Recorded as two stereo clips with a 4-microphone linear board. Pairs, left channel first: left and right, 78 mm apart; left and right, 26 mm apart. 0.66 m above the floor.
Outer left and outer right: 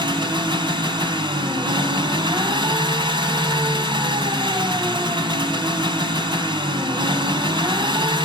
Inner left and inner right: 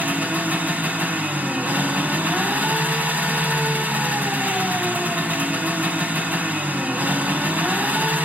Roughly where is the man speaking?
I don't hear a man speaking.